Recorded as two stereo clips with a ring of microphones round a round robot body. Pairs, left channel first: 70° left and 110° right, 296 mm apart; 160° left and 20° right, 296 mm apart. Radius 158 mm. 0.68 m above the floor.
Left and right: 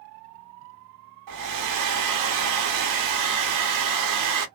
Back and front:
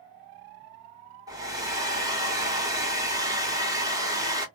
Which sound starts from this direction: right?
A hair dryer, at 1.3 s.